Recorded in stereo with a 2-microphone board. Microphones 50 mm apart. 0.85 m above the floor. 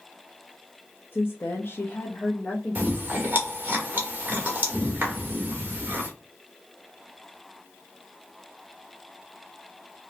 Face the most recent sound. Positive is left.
turn(degrees=-35)  # may be behind; listen again after turning